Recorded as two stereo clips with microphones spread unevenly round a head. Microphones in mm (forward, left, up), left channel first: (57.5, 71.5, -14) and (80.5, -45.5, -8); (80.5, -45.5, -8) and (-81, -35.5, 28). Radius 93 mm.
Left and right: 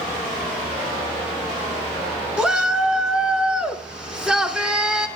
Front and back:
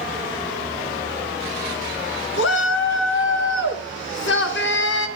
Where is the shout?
5° left, 1.9 m.